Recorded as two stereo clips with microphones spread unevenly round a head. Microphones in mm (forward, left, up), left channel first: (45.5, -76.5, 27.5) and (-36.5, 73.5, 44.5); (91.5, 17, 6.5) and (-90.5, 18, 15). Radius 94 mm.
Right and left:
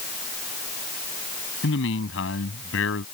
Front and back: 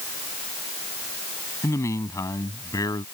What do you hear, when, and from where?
1.6 s a man speaking: 75° right